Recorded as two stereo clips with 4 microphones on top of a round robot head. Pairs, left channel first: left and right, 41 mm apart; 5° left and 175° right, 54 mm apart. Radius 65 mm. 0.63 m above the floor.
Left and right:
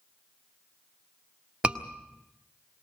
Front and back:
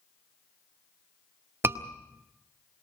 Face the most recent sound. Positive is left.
turn(degrees=-150)